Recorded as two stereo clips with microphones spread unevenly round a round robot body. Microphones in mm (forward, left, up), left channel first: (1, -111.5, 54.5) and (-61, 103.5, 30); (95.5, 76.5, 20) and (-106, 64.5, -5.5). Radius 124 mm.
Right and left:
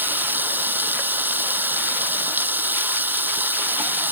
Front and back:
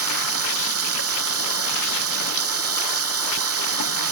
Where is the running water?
170° right.